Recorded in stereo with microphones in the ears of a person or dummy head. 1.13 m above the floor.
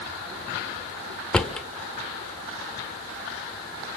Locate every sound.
1.3 s a drawer: 10° left (ahead or behind), 1.4 m